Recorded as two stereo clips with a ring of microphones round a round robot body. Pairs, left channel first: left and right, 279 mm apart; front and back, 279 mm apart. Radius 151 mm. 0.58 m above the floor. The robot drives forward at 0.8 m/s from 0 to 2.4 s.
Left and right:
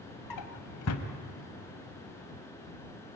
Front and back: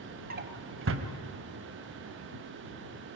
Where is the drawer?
120° left, 1.3 m; by 1.1 s 140° left, 1.6 m.